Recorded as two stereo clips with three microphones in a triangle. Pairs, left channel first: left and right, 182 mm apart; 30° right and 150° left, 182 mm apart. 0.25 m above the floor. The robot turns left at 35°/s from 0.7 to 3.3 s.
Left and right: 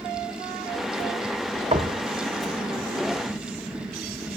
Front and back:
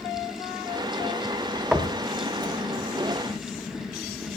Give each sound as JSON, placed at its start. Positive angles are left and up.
{"t": 1.7, "sound": "knocking", "azimuth_deg": -125, "distance_m": 0.9}